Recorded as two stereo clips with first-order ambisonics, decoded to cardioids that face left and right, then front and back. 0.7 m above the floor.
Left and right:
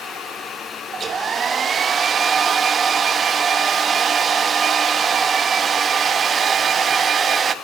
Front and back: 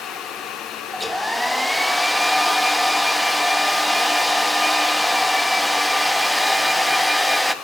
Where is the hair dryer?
80° right, 0.8 m.